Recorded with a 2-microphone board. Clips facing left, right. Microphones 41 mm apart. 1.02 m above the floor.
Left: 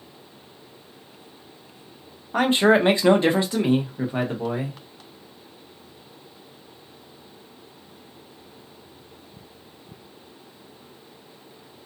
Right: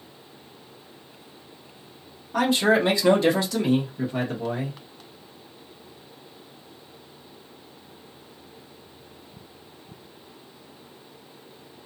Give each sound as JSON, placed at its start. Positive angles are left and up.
{"t": 2.3, "sound": "a man speaking", "side_deg": 30, "distance_m": 0.8}